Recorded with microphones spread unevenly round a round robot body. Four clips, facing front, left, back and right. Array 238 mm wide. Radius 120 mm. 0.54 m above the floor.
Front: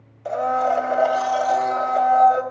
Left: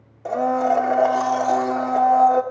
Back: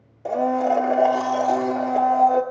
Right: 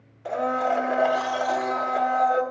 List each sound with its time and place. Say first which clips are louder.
0.2 s a blender: left 5 dB, even; 150° left, 1.0 m